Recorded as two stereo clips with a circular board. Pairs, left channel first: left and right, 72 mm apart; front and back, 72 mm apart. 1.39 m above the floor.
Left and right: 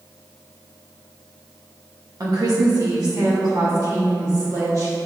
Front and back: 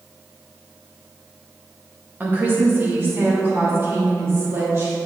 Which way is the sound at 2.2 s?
115° right.